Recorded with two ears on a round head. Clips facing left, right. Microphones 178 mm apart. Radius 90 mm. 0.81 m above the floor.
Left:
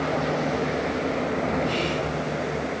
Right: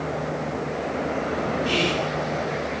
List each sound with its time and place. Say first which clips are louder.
1.6 s whispering: right 2 dB; 35° right (ahead or behind), 0.5 m